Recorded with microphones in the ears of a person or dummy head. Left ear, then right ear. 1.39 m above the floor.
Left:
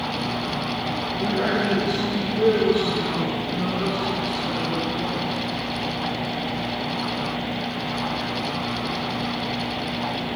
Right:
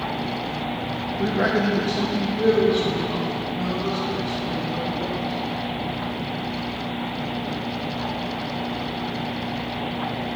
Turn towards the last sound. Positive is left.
turn(degrees=20)  # may be behind; listen again after turning